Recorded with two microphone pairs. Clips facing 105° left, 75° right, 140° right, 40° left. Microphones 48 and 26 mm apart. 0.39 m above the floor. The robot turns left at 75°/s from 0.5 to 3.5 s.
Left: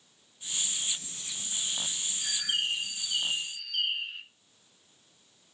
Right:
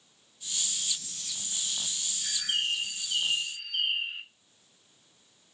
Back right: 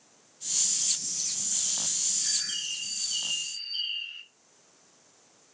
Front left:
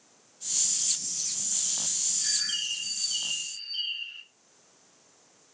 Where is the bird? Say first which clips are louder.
Even, front left 4 dB; 20° left, 0.7 m; by 4.2 s 75° right, 0.7 m.